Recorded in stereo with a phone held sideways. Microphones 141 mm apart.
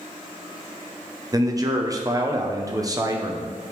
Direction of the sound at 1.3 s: 25° right (ahead or behind).